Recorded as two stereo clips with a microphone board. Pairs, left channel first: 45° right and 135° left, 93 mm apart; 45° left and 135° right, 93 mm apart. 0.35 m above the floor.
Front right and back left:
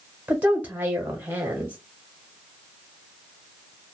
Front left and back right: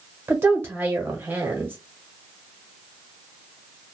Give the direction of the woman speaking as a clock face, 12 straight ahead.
6 o'clock.